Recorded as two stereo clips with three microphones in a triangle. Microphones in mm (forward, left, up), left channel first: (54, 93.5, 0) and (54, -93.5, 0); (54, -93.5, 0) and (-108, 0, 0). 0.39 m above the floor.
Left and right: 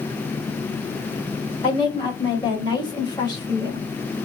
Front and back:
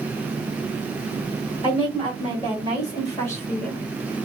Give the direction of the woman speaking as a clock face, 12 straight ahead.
11 o'clock.